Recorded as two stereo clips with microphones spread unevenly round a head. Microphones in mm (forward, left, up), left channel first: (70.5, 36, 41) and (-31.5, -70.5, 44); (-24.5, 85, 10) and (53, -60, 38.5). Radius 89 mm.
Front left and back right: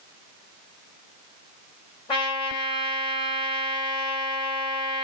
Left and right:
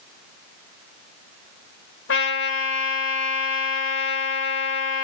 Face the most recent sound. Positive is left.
turn(degrees=110)